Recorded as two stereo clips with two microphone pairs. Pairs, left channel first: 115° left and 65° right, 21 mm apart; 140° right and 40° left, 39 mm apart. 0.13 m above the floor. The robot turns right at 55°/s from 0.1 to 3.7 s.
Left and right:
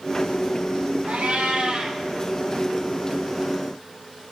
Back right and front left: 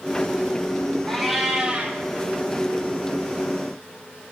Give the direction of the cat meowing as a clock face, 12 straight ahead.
2 o'clock.